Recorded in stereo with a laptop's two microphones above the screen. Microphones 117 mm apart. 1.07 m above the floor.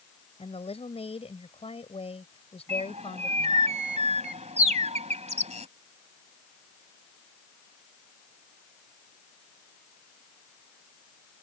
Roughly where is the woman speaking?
Left.